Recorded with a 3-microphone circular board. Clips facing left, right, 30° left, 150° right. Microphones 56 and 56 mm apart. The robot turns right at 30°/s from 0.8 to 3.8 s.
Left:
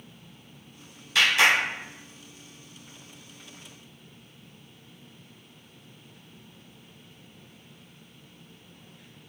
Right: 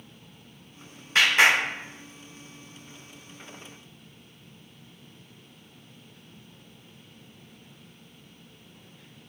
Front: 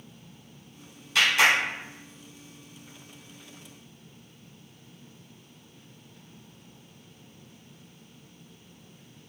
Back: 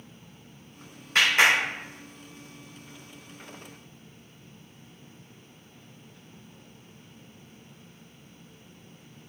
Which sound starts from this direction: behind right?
A clap, at 1.1 s.